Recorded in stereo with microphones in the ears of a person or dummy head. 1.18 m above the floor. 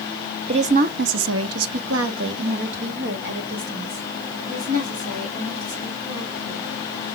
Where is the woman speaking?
30° right (ahead or behind), 0.6 m; by 6.7 s 50° right (ahead or behind), 3.5 m.